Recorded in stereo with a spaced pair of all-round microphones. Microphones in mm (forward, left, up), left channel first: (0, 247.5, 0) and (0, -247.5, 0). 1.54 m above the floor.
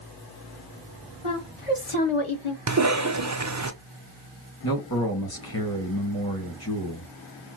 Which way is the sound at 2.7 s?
35° right (ahead or behind).